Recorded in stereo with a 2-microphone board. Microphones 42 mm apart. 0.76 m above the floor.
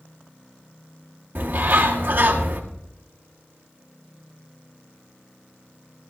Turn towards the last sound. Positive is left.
turn(degrees=-60)  # may be behind; listen again after turning